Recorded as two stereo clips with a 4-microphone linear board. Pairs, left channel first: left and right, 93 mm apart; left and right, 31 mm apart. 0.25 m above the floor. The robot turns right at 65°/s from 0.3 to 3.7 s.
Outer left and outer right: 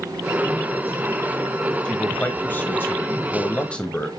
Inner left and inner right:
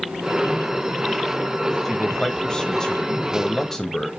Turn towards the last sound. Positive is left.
turn(degrees=10)  # may be behind; listen again after turning